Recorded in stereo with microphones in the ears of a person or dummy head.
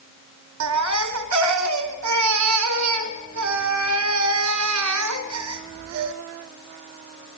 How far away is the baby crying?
About 1.2 m.